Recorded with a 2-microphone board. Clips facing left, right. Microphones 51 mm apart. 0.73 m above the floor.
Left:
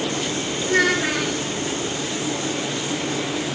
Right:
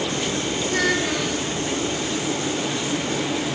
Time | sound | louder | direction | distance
0.6 | a child speaking | left 4 dB | 45° left (ahead or behind) | 5.5 m